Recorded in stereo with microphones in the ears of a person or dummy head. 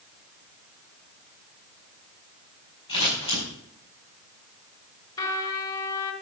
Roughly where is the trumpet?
Left.